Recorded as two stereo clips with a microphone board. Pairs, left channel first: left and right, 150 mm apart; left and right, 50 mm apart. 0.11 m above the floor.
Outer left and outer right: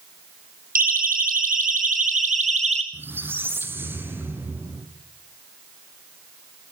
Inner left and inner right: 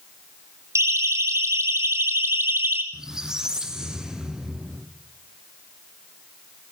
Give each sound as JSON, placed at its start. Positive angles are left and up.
{"t": 0.8, "sound": "a siren", "side_deg": -70, "distance_m": 4.5}
{"t": 2.9, "sound": "a squeak", "side_deg": -15, "distance_m": 2.5}